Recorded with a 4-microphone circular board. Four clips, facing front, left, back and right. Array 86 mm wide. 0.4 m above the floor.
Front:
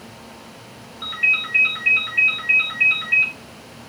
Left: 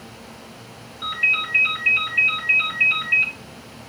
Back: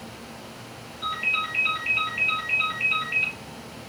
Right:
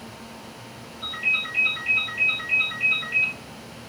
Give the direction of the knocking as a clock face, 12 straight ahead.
I don't hear knocking.